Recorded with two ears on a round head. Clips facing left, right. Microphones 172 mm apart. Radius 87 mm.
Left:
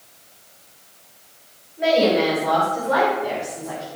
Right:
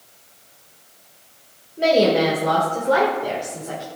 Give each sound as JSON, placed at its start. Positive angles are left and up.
{"t": 1.8, "sound": "a woman speaking", "side_deg": -50, "distance_m": 3.5}